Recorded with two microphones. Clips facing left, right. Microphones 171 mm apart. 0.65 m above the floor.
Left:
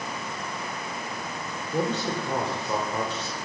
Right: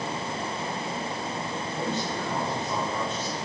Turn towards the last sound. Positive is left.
turn(degrees=65)  # may be behind; listen again after turning